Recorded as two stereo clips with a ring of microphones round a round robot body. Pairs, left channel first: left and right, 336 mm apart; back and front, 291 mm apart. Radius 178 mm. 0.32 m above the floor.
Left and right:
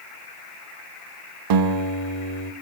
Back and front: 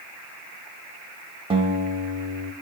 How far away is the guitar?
About 0.5 m.